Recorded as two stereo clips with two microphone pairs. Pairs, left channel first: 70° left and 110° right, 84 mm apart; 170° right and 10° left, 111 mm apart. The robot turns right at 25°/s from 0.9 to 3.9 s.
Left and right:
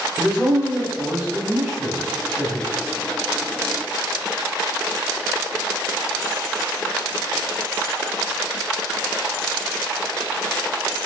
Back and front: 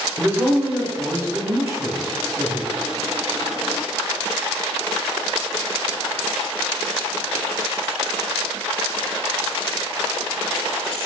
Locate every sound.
0.2 s a man speaking: 45° right, 1.1 m; by 2.7 s straight ahead, 1.1 m